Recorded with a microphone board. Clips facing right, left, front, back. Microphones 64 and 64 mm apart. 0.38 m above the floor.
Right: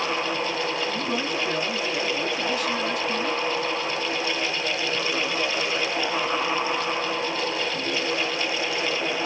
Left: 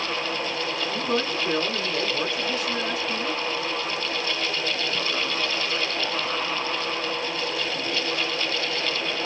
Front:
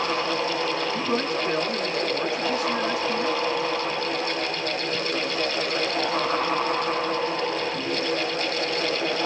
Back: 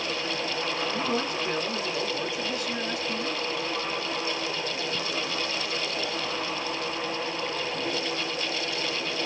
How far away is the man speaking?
About 1.7 m.